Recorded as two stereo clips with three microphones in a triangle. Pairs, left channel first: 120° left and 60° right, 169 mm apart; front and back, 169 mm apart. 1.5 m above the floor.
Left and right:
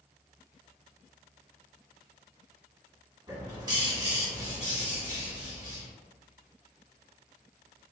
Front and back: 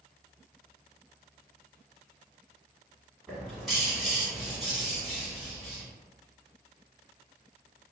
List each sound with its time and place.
3.3 s a bird: 90° right, 1.2 m